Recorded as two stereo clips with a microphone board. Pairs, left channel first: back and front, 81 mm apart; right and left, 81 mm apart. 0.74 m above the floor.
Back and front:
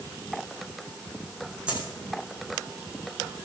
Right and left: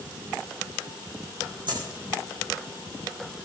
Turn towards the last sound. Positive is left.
turn(degrees=75)